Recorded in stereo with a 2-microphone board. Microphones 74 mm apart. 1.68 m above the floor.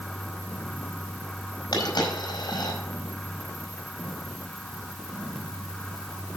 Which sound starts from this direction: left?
A dropped coin, at 1.7 s.